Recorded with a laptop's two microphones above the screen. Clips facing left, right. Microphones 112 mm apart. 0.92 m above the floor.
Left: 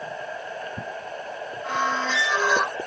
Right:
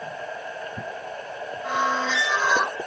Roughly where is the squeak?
Centre.